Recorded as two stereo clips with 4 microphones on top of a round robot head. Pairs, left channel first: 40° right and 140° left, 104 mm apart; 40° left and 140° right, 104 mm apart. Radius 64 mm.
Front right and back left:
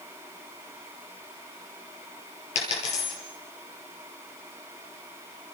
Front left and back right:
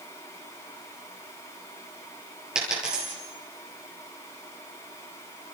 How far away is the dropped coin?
About 7 m.